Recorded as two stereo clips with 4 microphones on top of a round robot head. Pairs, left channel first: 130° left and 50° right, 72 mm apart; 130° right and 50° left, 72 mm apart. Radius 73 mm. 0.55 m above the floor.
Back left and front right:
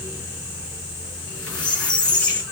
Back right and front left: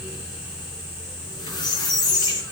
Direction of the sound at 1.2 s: 150° right.